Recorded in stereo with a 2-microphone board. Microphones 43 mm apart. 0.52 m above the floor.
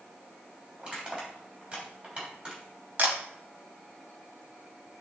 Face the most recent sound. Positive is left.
turn(degrees=-45)  # may be behind; listen again after turning